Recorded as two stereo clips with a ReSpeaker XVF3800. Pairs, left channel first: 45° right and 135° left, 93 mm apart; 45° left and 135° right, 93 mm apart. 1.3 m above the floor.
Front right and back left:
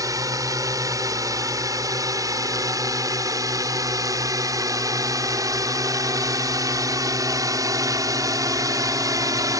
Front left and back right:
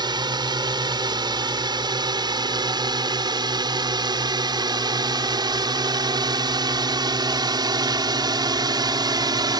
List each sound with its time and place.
0.0 s a drone: 175° right